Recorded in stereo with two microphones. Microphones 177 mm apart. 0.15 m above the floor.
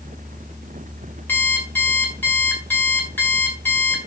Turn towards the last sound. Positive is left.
turn(degrees=10)  # may be behind; listen again after turning